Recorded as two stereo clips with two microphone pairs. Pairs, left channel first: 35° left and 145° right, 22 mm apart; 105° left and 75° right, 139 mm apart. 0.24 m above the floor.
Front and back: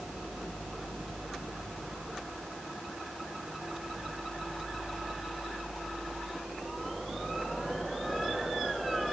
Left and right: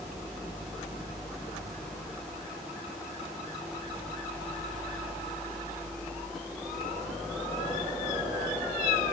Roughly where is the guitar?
I don't hear a guitar.